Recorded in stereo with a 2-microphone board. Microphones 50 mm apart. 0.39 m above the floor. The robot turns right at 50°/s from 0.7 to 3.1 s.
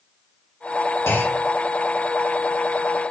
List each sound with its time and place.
1.1 s a clunk: 70° left (ahead or behind), 3.5 m